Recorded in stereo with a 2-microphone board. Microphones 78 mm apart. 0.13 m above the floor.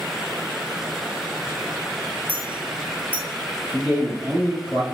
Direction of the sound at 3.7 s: 20° right (ahead or behind).